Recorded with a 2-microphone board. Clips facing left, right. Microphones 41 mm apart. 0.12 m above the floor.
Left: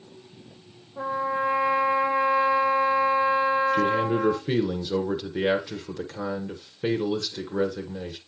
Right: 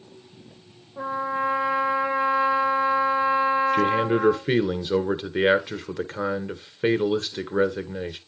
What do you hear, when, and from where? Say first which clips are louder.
1.0 s a trumpet: even; 5° right (ahead or behind), 4 m
3.7 s a man speaking: right 2 dB; 40° right (ahead or behind), 1.7 m